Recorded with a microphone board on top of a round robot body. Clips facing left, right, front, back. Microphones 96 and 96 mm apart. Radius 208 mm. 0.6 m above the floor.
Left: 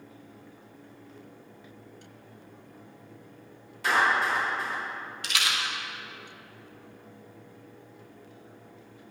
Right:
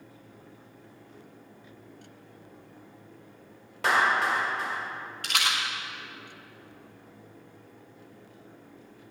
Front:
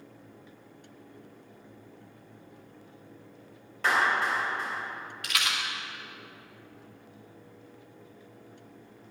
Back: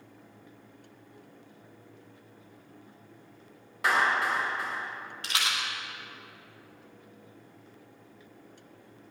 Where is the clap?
100° right, 4.5 m.